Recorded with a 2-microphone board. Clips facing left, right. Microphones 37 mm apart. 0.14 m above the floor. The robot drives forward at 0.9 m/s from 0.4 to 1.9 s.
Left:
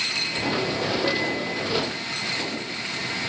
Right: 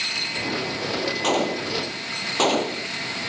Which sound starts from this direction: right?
A gunshot, at 1.2 s.